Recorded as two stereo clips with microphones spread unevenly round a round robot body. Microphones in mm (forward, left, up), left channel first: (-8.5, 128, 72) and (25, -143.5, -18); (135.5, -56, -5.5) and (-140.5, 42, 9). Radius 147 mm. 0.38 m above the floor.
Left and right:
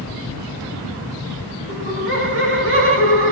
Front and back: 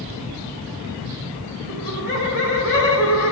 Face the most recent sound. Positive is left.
turn(degrees=-75)